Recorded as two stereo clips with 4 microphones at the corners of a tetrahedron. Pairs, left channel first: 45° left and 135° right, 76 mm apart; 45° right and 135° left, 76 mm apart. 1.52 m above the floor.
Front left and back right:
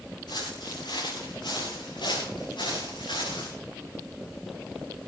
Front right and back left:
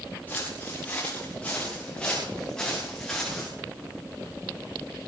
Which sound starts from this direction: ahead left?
Footsteps, at 0.3 s.